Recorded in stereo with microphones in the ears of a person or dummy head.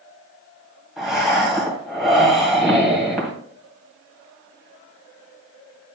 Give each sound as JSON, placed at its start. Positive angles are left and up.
{"t": 1.0, "sound": "breathing", "side_deg": -5, "distance_m": 2.5}